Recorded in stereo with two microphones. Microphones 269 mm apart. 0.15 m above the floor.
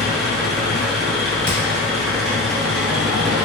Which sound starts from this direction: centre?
An engine running, at 0.0 s.